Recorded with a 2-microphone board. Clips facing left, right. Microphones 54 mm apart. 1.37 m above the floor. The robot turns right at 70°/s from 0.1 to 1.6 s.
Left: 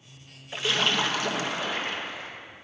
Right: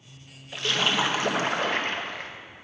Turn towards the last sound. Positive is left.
turn(degrees=-120)